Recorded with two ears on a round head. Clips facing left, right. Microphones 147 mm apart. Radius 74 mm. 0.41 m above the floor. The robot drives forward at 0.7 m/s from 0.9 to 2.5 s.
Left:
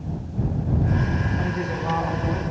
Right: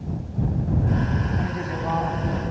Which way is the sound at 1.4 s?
5° right (ahead or behind).